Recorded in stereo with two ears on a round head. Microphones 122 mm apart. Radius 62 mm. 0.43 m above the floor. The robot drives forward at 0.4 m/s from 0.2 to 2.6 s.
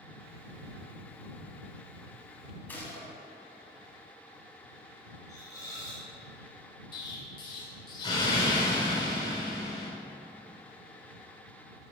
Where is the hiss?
25° left (ahead or behind), 1.5 m.